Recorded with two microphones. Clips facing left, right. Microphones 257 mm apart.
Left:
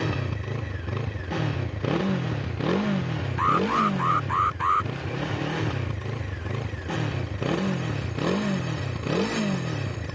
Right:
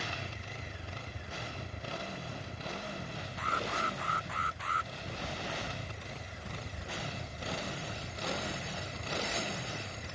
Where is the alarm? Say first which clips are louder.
Left 14 dB; 75° left (ahead or behind).